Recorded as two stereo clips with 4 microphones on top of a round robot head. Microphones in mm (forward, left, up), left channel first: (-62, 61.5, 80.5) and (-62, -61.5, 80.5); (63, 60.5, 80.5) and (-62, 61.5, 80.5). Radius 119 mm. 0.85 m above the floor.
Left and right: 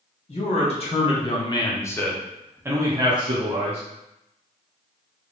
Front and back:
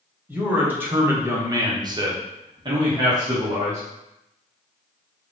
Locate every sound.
0.3 s a man speaking: 100° left, 1.8 m; by 3.8 s 120° right, 1.6 m